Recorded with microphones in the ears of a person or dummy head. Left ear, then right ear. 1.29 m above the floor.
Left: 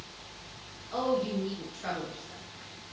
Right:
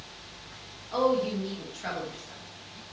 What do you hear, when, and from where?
0.9 s a woman speaking: 10° right (ahead or behind), 2 m